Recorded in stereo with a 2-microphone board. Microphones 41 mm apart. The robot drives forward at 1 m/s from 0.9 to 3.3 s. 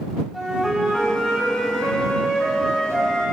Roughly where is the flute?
Centre.